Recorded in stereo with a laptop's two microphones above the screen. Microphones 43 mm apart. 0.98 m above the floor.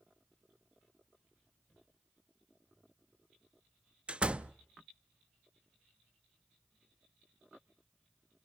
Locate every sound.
4.1 s a door slam: 25° right (ahead or behind), 0.5 m